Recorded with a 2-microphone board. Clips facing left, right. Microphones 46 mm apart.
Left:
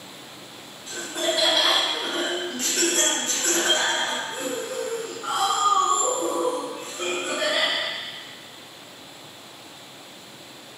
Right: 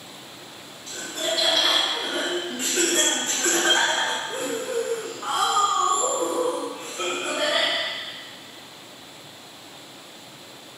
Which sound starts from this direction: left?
Laughter, at 0.9 s.